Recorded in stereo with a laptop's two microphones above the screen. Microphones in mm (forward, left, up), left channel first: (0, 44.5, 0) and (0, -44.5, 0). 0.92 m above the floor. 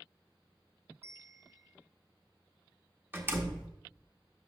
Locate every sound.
1.0 s a bell: 30° right (ahead or behind), 1.2 m
3.1 s a door slam: 25° right (ahead or behind), 0.9 m